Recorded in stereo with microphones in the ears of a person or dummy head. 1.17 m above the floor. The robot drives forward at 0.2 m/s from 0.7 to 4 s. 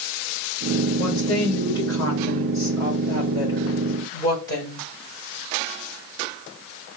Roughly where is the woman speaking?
Left.